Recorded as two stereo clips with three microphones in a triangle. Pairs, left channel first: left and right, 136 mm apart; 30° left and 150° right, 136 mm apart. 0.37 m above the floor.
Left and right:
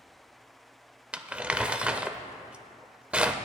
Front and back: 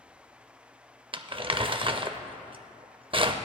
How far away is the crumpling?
About 0.5 m.